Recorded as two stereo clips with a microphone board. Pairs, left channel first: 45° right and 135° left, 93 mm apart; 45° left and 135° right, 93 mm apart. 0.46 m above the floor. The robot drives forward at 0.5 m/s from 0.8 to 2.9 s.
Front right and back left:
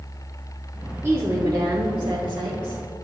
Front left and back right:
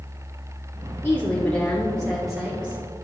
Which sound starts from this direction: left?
A woman speaking, at 1.0 s.